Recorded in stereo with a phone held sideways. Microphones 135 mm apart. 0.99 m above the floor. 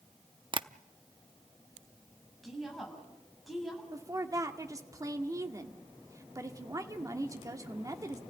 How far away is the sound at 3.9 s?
About 1.9 m.